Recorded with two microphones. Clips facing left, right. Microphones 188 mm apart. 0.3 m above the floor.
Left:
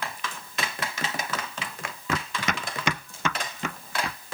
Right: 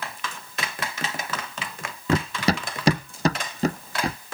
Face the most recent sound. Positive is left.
turn(degrees=-40)  # may be behind; listen again after turning